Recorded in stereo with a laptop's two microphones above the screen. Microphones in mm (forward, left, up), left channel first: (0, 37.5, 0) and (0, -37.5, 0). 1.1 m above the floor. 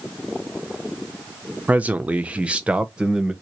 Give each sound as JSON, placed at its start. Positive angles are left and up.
{"t": 1.7, "sound": "a man speaking", "side_deg": -20, "distance_m": 0.6}